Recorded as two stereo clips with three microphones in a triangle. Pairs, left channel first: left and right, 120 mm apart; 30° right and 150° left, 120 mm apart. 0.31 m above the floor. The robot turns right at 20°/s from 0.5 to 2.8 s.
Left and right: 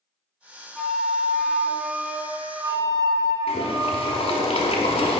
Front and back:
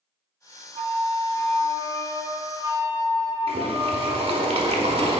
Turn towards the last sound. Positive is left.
turn(degrees=115)